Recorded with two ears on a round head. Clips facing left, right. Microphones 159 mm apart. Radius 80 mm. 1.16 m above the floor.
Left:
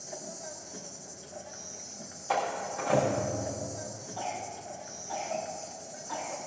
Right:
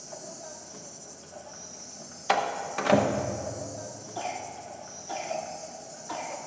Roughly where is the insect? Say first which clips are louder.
Even; centre.